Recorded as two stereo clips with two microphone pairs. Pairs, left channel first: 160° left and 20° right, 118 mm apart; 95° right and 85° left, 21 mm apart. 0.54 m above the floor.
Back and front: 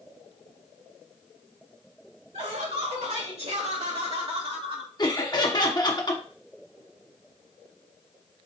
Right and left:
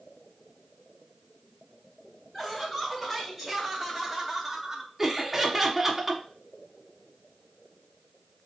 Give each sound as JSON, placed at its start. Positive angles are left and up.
{"t": 2.3, "sound": "laughter", "azimuth_deg": -15, "distance_m": 2.5}
{"t": 5.0, "sound": "laughter", "azimuth_deg": 150, "distance_m": 1.0}